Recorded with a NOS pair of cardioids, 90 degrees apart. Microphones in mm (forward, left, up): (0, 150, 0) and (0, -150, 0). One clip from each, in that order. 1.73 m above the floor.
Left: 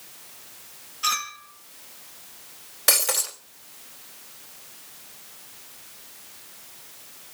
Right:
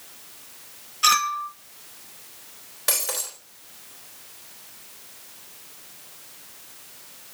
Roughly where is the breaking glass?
Ahead left.